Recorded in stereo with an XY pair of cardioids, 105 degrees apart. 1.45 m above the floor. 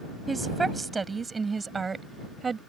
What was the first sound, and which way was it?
A woman speaking, 25° right.